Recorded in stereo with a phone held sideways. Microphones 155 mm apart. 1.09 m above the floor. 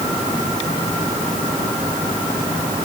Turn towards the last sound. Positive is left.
No sound to turn to.